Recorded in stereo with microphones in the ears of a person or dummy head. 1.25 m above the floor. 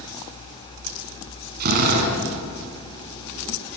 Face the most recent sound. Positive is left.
turn(degrees=-55)  # may be behind; listen again after turning